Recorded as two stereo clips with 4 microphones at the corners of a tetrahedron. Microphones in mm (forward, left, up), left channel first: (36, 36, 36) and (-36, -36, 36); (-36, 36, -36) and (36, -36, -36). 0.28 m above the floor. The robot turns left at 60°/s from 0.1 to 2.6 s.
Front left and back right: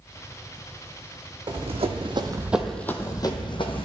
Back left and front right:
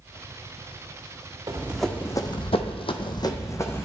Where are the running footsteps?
110° right, 1.0 m; by 3.9 s 65° left, 0.8 m.